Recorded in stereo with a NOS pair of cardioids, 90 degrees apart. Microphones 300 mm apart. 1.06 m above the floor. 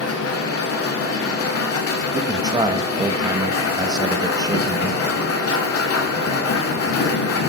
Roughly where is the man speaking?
Ahead.